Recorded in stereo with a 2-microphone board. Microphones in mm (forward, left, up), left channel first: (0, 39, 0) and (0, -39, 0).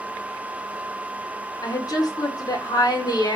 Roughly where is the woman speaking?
Left.